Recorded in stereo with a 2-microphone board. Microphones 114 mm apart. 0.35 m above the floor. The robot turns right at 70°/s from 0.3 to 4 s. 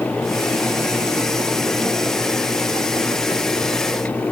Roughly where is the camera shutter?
I don't hear a camera shutter.